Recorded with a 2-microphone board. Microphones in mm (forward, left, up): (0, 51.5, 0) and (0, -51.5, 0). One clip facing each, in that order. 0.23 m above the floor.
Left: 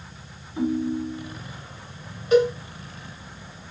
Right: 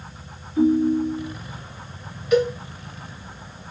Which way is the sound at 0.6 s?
25° left (ahead or behind).